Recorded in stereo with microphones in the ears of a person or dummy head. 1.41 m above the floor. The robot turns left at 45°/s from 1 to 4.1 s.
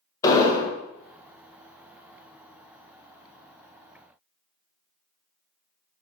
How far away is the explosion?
About 0.5 m.